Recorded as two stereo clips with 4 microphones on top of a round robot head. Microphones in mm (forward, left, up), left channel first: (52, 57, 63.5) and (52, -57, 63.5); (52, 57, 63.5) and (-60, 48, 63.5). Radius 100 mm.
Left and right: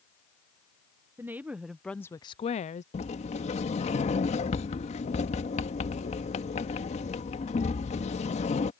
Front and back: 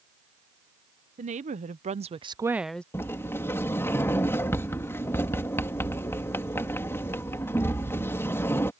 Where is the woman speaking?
165° right; by 2.8 s 85° left.